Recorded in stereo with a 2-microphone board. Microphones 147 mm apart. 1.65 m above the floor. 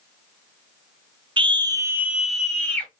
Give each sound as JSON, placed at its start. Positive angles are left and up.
{"t": 1.4, "sound": "a scream", "side_deg": -35, "distance_m": 0.6}